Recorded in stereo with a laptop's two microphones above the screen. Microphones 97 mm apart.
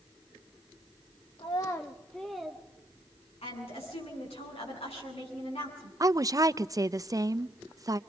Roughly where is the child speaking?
Left.